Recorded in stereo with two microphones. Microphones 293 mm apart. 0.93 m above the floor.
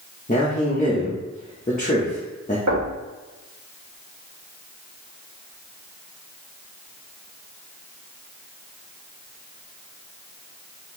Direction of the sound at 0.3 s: 25° left (ahead or behind).